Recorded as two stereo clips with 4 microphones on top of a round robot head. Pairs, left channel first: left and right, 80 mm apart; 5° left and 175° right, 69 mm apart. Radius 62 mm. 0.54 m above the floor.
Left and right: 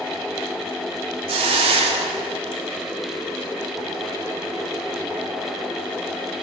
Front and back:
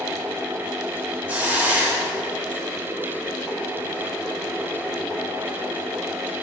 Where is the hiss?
100° right, 0.5 m.